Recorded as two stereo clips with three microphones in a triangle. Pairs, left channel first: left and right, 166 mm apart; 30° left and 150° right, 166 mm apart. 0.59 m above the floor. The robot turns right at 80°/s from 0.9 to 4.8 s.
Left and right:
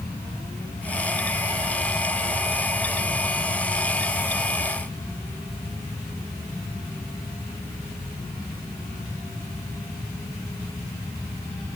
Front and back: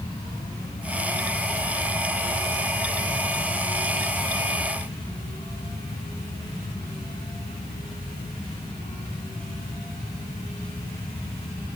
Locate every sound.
Only background noise.